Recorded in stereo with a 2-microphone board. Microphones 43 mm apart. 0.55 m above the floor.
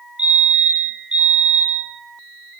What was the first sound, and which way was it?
A fire alarm, 25° right (ahead or behind).